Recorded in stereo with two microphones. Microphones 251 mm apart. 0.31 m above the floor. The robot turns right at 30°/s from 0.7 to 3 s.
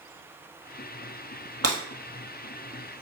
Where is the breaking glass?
70° right (ahead or behind), 1.5 m; by 1.8 s 75° right (ahead or behind), 1.5 m.